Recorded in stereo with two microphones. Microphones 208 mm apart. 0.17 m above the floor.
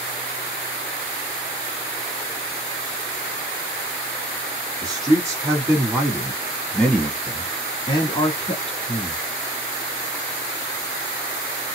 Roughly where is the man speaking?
Centre.